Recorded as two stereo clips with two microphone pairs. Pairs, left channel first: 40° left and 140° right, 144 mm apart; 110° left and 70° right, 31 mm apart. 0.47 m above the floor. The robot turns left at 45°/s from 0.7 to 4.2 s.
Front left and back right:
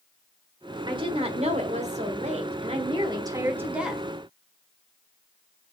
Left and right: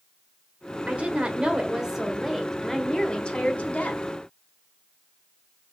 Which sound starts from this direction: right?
A woman speaking, at 0.9 s.